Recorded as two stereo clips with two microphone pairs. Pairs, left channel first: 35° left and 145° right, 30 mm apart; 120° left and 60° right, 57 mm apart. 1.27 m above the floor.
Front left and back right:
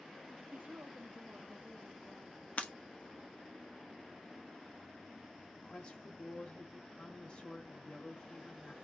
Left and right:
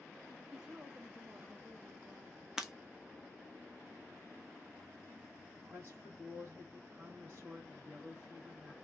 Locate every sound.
0.5 s a woman speaking: 140° right, 0.6 m; by 2.5 s 95° right, 1.6 m
2.6 s breaking glass: 20° left, 0.7 m
5.6 s a woman speaking: 5° right, 1.8 m